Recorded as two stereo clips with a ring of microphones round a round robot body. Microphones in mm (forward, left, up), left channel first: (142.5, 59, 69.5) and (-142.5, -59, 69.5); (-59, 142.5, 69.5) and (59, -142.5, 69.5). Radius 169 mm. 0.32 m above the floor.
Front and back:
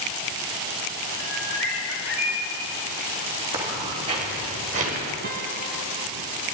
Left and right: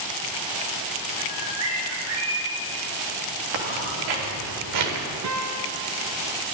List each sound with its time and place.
1.2 s a bird: 30° right, 4.5 m
3.5 s footsteps: 80° right, 4 m; by 5.1 s 90° right, 4 m
5.2 s a guitar: 100° right, 1.2 m